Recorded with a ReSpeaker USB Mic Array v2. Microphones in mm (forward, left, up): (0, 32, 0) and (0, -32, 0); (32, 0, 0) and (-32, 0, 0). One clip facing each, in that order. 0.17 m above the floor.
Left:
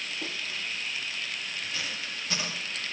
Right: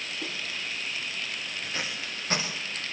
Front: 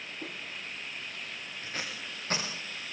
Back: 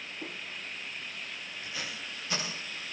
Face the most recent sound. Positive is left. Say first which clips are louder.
# right 1 dB, front 1 dB
turn(degrees=-40)